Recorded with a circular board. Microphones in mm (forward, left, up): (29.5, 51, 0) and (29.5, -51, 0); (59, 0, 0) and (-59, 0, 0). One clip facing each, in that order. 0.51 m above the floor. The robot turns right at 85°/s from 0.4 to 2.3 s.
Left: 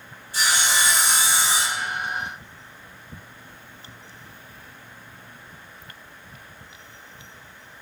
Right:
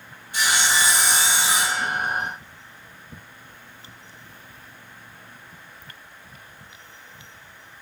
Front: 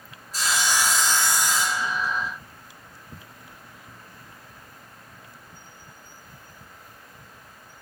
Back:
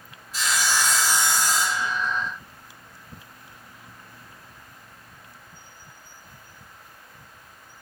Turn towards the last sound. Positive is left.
turn(degrees=-155)